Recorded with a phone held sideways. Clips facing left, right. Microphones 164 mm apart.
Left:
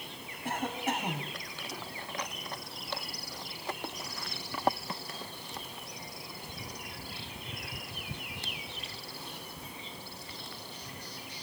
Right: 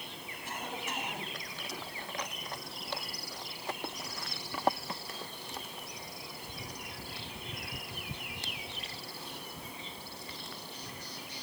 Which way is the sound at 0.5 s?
55° left (ahead or behind).